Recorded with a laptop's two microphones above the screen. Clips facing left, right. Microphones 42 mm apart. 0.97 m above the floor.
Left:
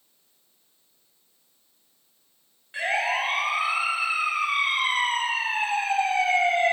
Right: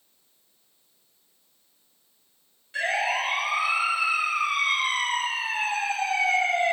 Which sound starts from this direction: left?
A siren, at 2.7 s.